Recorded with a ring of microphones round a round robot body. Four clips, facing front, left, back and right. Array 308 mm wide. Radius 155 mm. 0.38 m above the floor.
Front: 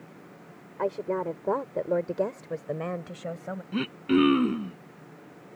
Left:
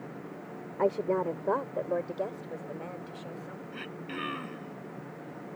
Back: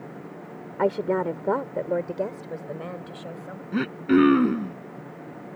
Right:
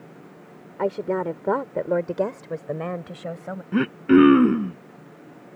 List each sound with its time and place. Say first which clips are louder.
0.8 s a woman speaking: right 3 dB, back 5 dB; 165° right; by 3.6 s 70° right
3.7 s throat clearing: right 26 dB, back 4 dB; 105° right